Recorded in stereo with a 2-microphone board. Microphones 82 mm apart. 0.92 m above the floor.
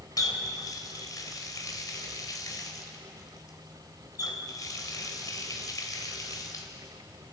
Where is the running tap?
45° left (ahead or behind), 2.5 m.